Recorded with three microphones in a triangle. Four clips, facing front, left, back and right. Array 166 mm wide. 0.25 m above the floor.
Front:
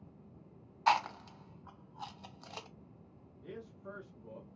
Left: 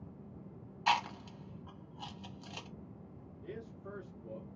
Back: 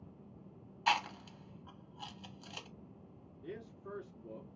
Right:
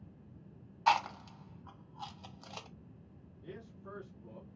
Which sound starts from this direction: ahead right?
Chewing, at 0.9 s.